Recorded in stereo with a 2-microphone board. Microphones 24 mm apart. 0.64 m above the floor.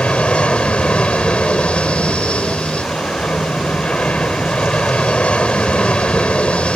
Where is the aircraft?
60° left (ahead or behind).